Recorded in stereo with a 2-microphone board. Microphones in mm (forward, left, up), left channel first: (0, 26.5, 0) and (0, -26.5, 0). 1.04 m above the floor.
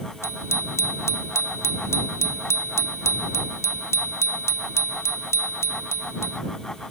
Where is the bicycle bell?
65° left (ahead or behind).